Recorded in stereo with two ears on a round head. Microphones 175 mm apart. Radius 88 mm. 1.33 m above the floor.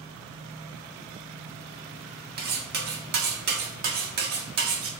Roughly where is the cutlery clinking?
Right.